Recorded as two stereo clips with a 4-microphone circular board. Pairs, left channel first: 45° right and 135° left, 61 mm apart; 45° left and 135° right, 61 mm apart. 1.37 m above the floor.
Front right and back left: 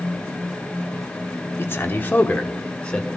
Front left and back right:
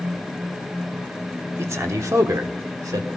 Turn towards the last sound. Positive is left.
turn(degrees=-120)